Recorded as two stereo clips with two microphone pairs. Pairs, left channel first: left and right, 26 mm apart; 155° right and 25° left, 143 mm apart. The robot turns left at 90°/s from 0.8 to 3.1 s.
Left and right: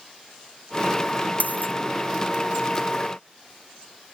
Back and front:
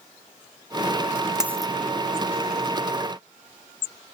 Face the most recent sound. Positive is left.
turn(degrees=-40)